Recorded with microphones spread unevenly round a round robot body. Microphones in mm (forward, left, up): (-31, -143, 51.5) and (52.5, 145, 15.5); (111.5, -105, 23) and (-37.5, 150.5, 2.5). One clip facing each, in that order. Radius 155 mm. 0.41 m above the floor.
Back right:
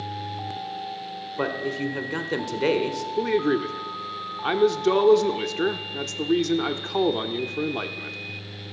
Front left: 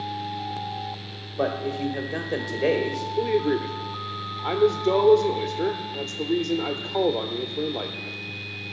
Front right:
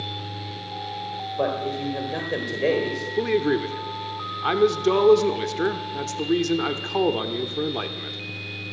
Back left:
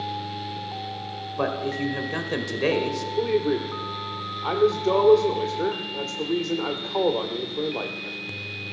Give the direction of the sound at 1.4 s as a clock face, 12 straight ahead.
6 o'clock.